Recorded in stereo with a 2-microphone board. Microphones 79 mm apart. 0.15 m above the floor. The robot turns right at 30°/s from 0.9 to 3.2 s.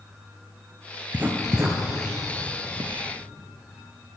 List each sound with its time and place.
1.1 s writing: 20° right (ahead or behind), 1.9 m; by 3.0 s 60° right (ahead or behind), 1.9 m